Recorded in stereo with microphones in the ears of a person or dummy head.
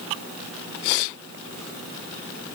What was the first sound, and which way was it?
Only background noise.